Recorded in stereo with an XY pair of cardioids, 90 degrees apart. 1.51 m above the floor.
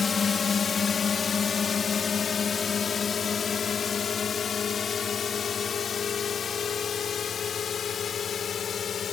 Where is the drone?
45° left; by 9.1 s 55° left.